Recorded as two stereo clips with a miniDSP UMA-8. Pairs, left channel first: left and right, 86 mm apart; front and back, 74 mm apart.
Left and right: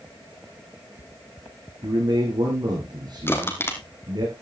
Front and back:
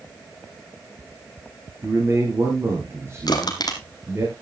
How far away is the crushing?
About 2 m.